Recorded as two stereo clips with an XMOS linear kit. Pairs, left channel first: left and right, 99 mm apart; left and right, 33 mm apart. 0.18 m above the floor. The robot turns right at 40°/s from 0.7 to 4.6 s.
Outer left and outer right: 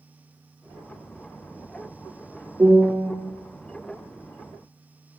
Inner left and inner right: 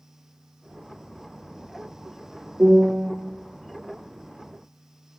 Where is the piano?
25° right (ahead or behind), 6 m; by 3.1 s 5° right (ahead or behind), 6 m.